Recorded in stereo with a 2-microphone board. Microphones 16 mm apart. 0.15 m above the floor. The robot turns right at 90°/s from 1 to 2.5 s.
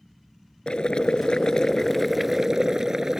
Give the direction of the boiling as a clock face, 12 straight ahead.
10 o'clock.